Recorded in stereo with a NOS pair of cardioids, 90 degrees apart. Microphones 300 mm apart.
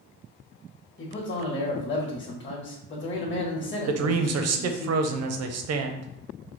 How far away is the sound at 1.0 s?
About 1.8 m.